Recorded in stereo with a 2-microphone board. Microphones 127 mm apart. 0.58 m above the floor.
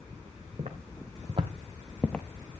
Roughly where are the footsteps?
Right.